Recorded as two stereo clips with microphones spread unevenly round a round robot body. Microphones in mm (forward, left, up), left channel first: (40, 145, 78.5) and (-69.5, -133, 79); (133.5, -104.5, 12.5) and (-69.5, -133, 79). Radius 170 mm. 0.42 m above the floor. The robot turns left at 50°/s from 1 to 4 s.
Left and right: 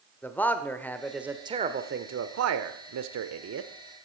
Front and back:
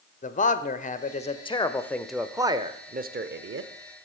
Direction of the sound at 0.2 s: 15° right.